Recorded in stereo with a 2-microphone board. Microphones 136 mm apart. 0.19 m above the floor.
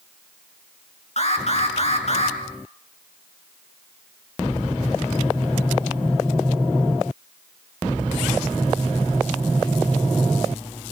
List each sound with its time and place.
1.2 s an alarm: 55° left (ahead or behind), 3.5 m